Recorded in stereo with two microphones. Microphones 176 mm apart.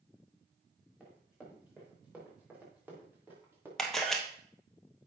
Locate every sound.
1.0 s running footsteps: 5° right (ahead or behind), 5.5 m; by 3.7 s 15° right (ahead or behind), 4 m
3.8 s a camera shutter: centre (ahead or behind), 1.4 m